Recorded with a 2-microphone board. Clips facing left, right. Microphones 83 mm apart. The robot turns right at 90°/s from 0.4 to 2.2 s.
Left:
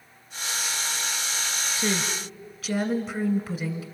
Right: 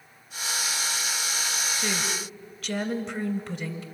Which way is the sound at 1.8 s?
135° left.